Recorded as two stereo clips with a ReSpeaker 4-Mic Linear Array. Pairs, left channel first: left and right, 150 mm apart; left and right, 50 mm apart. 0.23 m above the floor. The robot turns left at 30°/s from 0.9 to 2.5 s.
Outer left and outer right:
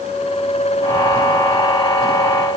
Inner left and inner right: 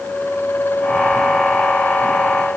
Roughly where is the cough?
No cough in this recording.